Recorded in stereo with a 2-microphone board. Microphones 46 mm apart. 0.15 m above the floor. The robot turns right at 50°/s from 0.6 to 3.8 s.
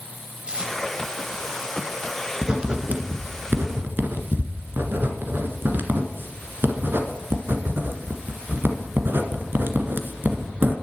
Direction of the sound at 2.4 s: 20° right (ahead or behind).